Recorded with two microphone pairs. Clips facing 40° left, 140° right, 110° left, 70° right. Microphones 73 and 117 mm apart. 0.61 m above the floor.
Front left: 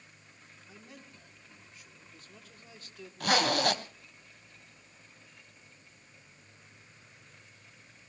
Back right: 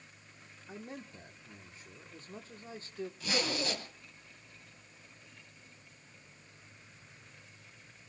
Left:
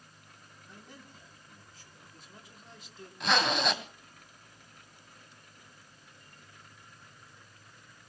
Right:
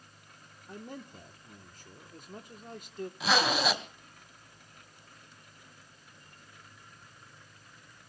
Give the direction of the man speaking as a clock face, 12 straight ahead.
3 o'clock.